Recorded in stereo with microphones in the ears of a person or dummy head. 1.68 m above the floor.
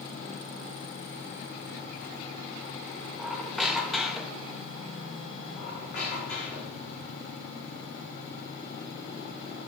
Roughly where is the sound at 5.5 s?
Left.